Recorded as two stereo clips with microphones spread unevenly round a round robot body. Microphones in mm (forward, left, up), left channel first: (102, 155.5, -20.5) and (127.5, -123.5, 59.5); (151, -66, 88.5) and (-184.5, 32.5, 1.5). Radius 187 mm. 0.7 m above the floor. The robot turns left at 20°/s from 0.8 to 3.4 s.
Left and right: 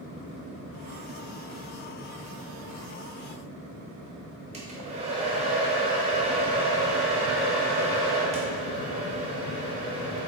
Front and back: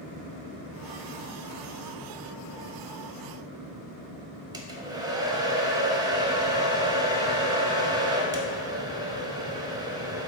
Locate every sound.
4.5 s a hair dryer: 160° right, 0.7 m